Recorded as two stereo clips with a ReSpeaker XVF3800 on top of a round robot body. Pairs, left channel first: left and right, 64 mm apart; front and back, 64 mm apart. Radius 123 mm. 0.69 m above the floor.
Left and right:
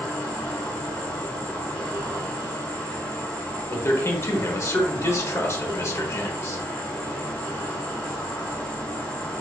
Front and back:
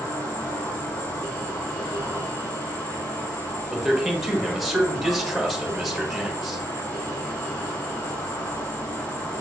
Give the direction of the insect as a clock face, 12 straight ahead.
11 o'clock.